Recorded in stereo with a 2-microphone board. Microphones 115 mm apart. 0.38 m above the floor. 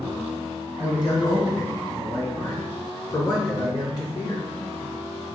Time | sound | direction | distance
0.8 | a man speaking | 35° left (ahead or behind) | 3 m